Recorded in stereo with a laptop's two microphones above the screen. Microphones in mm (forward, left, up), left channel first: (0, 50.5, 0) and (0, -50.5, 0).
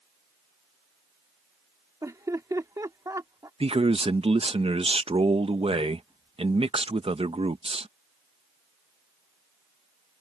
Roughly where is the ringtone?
I don't hear a ringtone.